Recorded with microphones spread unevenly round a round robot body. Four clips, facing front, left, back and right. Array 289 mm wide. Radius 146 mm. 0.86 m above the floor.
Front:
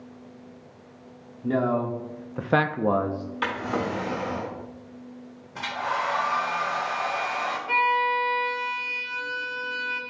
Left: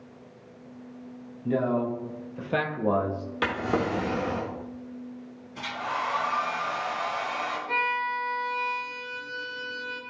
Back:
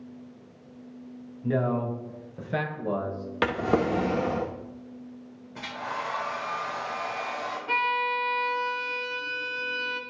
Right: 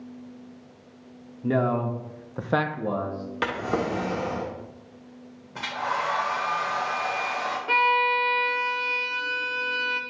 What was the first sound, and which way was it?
A man speaking, 65° right.